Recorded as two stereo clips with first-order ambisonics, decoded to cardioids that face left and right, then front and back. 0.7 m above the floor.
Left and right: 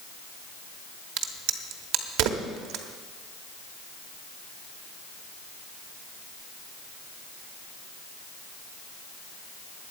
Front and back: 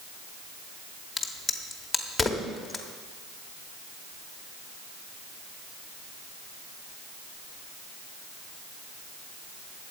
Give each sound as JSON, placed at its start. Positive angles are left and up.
{"t": 1.2, "sound": "a crack", "azimuth_deg": -85, "distance_m": 1.0}